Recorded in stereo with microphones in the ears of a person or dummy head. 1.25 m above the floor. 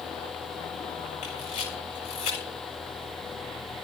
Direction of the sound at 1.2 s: 45° left (ahead or behind).